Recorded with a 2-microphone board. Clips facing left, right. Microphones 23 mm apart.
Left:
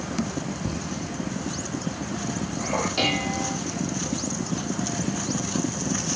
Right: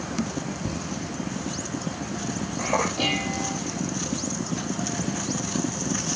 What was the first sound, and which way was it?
Laughter, 30° right (ahead or behind).